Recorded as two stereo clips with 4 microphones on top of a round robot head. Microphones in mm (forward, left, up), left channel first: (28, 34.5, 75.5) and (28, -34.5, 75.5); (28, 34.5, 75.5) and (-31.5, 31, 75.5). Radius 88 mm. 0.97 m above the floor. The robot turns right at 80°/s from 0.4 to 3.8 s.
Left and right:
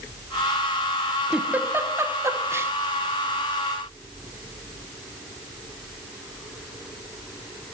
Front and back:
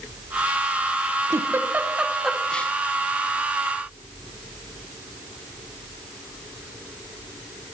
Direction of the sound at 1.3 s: 165° right.